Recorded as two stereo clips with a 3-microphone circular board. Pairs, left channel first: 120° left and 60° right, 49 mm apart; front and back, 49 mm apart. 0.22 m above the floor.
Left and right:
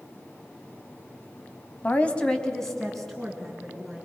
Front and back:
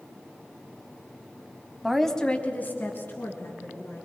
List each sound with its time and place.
1.8 s a woman speaking: 105° left, 1.2 m; by 4.0 s 25° left, 3.5 m